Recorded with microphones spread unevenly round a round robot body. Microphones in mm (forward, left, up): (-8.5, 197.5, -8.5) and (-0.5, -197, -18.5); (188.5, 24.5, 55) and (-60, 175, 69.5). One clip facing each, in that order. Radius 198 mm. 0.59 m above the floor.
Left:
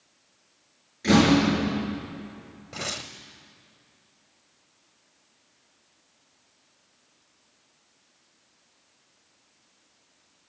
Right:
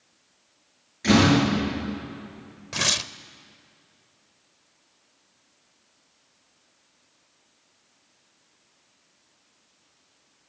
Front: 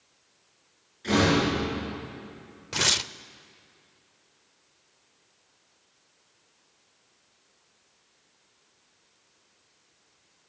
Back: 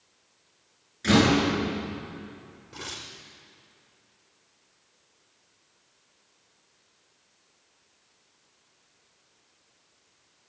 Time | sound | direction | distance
1.0 | a door slam | 165° right | 8.5 m
2.7 | tearing paper | 30° right | 0.6 m